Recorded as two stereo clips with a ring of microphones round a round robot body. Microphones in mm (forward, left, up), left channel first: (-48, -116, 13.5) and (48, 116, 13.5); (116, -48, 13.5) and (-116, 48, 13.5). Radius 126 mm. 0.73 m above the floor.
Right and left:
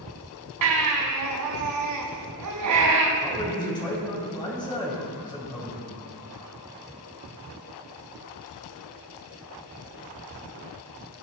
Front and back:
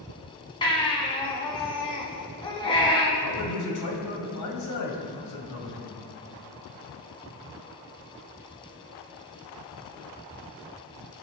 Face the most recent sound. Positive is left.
turn(degrees=-40)